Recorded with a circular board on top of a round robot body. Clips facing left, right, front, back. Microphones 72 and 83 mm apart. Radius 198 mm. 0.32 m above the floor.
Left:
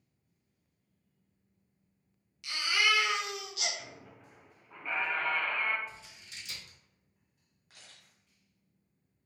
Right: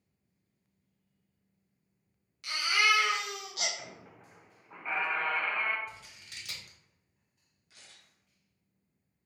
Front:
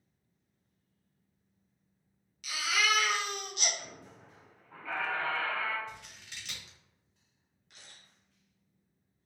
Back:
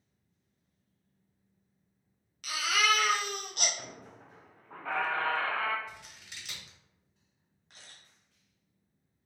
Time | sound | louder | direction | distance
2.4 | a baby crying | right 2 dB, back 2 dB | 140° right | 0.7 m
3.8 | a squeak | right 1 dB, back 2 dB | 155° right | 0.9 m
5.9 | scissors | right 1 dB, front 1 dB | 100° right | 1.5 m
7.7 | a camera shutter | left 1 dB, back 1 dB | 130° left | 1.2 m